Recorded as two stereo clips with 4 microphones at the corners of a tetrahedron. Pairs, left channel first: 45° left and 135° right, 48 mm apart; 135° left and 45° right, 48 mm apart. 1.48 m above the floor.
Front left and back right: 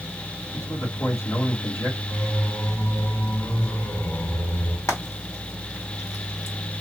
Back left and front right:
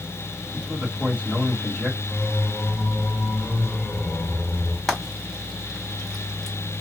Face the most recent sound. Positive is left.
turn(degrees=50)